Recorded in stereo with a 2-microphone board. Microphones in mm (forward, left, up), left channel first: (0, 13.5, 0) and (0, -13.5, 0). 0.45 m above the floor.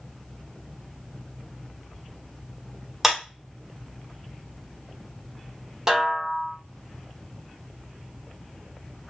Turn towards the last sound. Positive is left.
turn(degrees=-25)  # may be behind; listen again after turning